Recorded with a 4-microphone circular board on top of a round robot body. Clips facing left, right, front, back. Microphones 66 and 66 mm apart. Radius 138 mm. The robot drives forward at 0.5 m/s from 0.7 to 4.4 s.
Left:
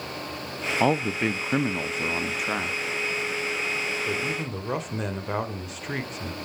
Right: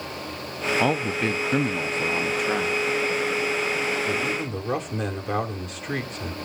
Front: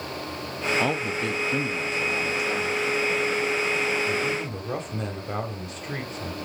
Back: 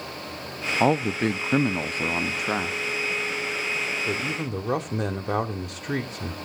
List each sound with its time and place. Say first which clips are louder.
0.8 s a man speaking: left 2 dB, back 4 dB; 165° left, 0.8 m; by 6.3 s 175° left, 2.5 m